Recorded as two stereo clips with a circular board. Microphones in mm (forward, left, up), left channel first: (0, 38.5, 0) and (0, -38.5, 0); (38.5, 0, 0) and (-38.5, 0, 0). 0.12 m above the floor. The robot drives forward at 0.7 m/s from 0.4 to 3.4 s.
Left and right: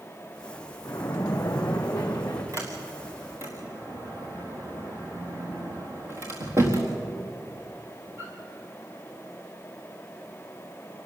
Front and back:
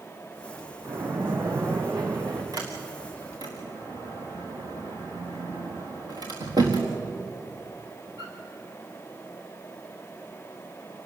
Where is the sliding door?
140° right, 3.5 m; by 8.3 s 145° right, 4 m.